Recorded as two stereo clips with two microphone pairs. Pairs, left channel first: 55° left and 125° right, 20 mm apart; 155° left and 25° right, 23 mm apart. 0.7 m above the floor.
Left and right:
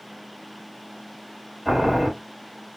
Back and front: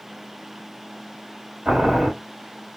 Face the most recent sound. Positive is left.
turn(degrees=-65)